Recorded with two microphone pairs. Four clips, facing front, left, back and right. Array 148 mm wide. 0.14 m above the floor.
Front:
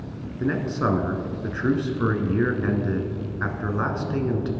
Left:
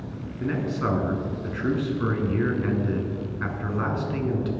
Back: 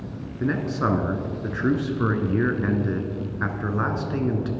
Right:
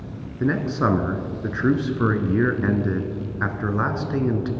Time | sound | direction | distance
0.4 | a man speaking | 100° right | 1.2 m